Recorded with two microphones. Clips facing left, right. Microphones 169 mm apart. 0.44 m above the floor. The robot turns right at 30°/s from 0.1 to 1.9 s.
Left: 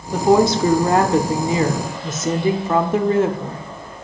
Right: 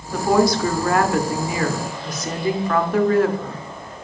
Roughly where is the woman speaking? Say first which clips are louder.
Left 3 dB; left.